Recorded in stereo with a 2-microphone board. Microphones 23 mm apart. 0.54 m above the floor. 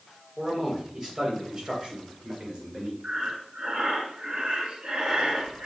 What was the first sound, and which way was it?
A man speaking, 10° right (ahead or behind).